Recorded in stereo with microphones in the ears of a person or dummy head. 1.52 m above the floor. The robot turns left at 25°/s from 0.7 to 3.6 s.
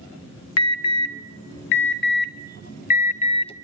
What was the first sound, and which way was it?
An alarm, 80° left.